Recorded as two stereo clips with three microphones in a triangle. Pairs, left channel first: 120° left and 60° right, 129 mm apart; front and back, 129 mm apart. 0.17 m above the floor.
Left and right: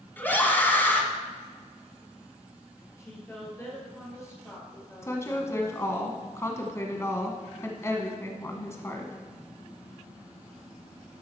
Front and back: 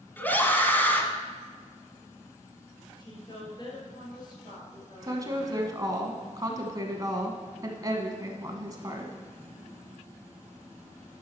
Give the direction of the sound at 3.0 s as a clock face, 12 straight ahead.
10 o'clock.